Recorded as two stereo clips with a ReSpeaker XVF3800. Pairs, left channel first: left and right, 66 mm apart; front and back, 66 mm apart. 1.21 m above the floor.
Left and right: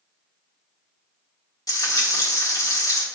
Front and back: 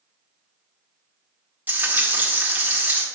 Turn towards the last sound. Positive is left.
turn(degrees=120)